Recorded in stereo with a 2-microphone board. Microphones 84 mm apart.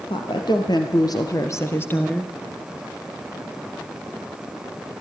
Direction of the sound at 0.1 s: 65° left (ahead or behind).